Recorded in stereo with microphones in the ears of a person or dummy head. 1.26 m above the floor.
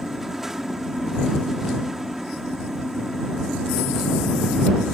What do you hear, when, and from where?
0.0 s a fan: 5° right (ahead or behind)